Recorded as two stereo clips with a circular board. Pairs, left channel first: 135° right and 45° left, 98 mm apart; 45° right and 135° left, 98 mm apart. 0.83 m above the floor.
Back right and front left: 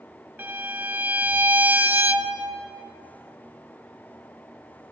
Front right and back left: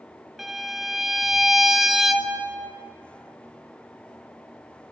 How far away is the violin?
About 0.7 m.